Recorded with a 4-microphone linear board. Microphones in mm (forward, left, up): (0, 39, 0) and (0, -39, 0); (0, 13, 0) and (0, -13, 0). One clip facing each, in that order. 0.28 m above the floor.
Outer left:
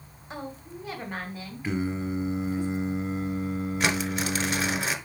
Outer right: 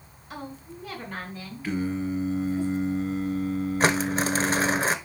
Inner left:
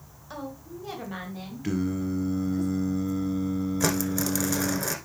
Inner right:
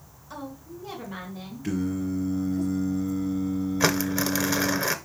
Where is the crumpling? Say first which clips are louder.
Outer right 5 dB, inner right 4 dB; 35° right (ahead or behind), 0.8 m.